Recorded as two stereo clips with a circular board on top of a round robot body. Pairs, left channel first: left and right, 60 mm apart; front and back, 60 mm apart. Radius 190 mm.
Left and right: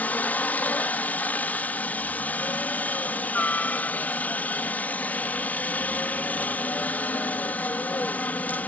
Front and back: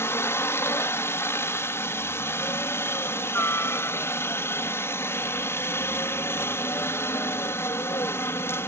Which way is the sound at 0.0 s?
35° left.